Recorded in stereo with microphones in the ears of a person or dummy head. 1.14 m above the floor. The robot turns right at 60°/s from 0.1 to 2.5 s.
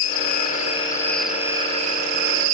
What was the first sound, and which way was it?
An insect, 115° left.